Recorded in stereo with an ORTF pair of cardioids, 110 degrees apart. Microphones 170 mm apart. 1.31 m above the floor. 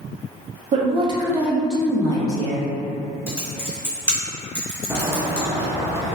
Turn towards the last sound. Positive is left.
turn(degrees=-15)